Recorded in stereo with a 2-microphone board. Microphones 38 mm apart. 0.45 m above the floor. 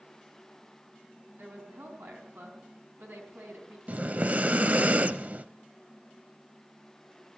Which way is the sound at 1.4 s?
75° right (ahead or behind).